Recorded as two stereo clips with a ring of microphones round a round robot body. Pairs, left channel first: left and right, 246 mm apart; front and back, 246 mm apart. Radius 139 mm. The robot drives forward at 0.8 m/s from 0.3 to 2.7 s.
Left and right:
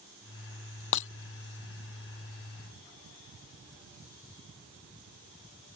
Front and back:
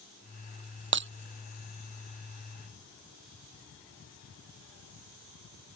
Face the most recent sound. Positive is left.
turn(degrees=145)